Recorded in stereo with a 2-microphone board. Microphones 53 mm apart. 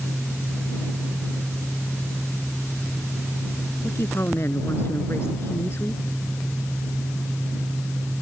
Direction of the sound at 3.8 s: 50° left (ahead or behind).